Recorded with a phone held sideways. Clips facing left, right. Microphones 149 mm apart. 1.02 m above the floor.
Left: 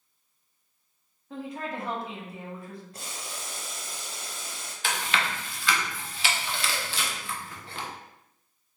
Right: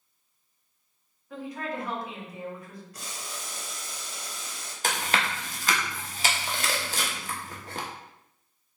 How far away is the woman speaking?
About 1.3 m.